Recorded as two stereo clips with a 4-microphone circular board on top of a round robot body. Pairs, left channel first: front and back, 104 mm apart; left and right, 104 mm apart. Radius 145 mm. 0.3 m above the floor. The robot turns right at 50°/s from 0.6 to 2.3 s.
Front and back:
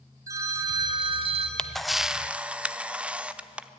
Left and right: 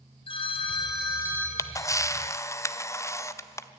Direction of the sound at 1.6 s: 75° left.